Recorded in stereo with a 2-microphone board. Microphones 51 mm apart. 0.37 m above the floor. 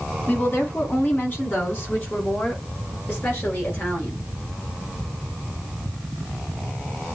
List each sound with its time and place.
0.3 s a woman speaking: 40° left (ahead or behind), 2.5 m